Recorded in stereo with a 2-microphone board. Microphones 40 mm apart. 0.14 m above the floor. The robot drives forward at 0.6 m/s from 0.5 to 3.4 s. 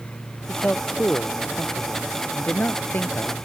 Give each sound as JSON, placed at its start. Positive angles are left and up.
{"t": 0.5, "sound": "a man speaking", "side_deg": 40}